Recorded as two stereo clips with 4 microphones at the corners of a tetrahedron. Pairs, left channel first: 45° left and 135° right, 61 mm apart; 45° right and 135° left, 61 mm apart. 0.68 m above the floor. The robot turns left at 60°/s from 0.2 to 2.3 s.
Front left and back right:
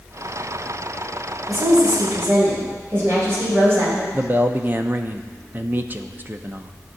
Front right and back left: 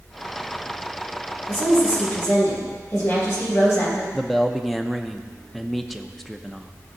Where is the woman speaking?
45° right, 3.5 m; by 4.0 s 90° right, 3.5 m.